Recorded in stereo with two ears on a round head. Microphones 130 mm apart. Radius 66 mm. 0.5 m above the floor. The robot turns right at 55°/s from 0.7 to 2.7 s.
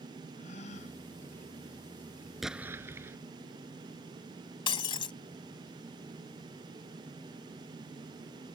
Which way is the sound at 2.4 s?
Centre (ahead or behind).